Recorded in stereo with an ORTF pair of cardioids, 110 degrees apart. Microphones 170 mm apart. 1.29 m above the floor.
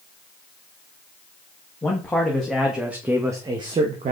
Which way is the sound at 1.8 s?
10° left.